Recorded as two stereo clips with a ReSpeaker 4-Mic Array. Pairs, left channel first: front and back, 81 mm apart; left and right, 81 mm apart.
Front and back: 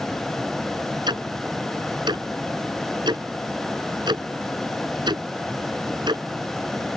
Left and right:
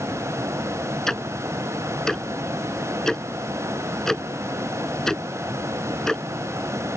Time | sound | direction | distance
1.1 | ticking | 175° left | ?